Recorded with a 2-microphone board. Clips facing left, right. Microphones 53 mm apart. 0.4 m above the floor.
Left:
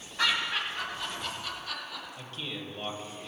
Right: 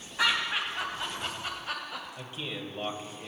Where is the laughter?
10° right (ahead or behind), 3 m; by 2.1 s 45° right (ahead or behind), 2 m.